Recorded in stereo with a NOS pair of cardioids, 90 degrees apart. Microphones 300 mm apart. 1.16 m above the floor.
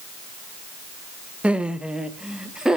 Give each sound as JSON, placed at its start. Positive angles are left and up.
{"t": 1.4, "sound": "laughter", "azimuth_deg": -5, "distance_m": 0.8}